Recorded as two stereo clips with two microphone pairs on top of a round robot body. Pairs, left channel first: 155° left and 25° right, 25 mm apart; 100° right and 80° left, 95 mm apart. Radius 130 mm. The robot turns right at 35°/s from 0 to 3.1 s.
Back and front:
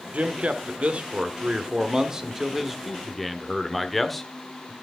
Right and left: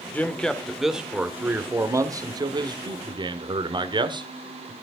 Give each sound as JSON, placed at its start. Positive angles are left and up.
{"t": 0.1, "sound": "a man speaking", "azimuth_deg": -30, "distance_m": 1.5}